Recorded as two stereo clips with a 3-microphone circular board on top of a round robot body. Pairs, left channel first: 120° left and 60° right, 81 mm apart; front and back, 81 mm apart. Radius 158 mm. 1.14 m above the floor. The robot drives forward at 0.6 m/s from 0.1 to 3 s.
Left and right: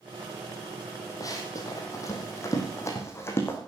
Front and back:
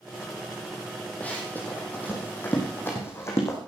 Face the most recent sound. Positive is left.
turn(degrees=55)